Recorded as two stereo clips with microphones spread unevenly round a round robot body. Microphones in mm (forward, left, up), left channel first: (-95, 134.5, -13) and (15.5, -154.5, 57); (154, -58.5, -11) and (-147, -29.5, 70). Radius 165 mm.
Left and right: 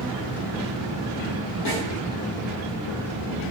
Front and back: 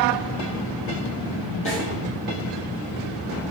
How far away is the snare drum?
About 5.5 m.